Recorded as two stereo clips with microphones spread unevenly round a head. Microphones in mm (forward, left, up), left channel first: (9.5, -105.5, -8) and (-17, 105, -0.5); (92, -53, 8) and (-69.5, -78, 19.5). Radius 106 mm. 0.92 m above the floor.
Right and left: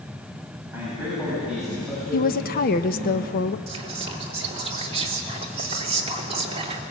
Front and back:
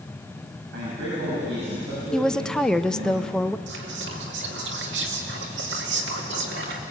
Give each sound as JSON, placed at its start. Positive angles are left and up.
{"t": 0.7, "sound": "a man speaking", "azimuth_deg": 180, "distance_m": 7.0}
{"t": 2.1, "sound": "a woman speaking", "azimuth_deg": -70, "distance_m": 0.7}
{"t": 3.7, "sound": "whispering", "azimuth_deg": 160, "distance_m": 2.5}